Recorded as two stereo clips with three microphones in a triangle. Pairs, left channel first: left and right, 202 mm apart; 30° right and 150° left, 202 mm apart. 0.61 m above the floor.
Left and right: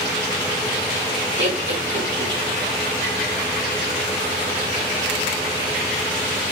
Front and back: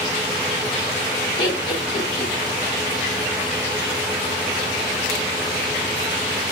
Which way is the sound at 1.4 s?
95° right.